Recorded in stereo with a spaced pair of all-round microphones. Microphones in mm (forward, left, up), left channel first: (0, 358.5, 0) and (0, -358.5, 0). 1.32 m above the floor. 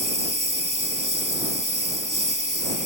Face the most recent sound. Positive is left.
turn(degrees=-25)  # may be behind; listen again after turning